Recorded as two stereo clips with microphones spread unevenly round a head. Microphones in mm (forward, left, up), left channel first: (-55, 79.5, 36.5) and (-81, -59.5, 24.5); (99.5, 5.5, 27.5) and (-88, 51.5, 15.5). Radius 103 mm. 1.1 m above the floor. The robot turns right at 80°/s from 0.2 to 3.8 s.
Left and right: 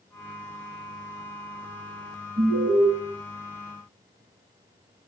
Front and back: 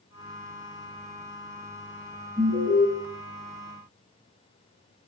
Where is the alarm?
120° right, 6 m; by 2.8 s 80° right, 6 m.